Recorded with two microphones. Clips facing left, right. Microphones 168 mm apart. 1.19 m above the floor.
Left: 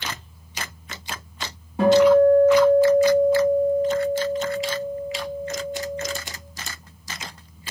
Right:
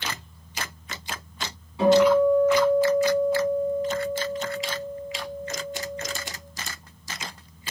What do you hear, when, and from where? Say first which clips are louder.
1.8 s a guitar: left 3 dB; 55° left (ahead or behind), 6 m